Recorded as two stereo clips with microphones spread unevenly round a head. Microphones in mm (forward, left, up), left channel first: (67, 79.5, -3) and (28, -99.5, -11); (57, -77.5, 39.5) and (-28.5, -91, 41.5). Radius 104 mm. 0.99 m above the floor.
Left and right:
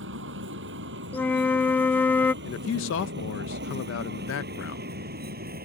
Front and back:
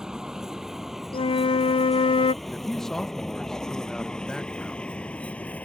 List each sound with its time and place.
0.0 s a vehicle: 90° right; by 5.7 s 65° right
1.1 s a flute: 5° right
2.4 s a man speaking: 95° left